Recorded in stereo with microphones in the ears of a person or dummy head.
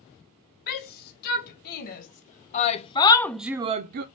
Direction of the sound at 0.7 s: 55° left (ahead or behind).